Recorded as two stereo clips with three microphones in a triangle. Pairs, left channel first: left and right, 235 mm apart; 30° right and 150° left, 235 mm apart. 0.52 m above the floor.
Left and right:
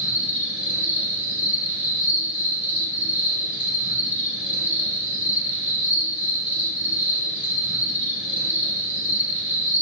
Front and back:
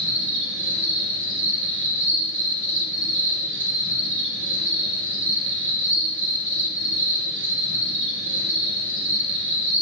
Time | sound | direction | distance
0.0 | an insect | 175° right | 1.0 m